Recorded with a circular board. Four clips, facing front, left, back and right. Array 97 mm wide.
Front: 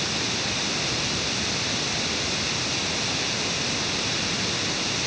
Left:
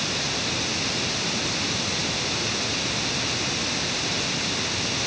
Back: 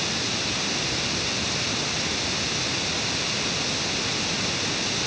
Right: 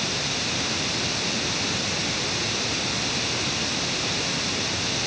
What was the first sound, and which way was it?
Only background noise.